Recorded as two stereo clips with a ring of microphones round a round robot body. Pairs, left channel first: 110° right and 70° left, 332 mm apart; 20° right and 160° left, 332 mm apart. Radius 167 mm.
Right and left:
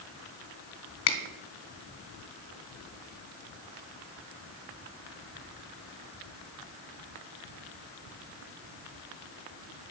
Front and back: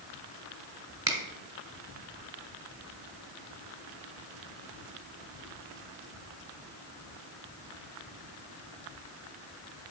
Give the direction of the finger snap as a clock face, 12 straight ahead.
4 o'clock.